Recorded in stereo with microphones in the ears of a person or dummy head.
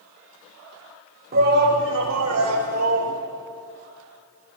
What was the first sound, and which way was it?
A shout, 45° right (ahead or behind).